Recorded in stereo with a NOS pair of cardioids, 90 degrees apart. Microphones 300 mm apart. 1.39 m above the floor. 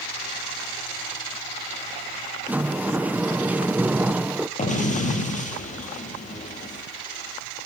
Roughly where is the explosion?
Ahead left.